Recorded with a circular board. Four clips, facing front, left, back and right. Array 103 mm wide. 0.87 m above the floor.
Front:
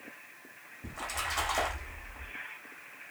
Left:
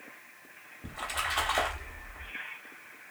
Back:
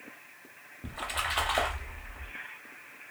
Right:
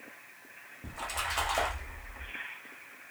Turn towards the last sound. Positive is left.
turn(degrees=160)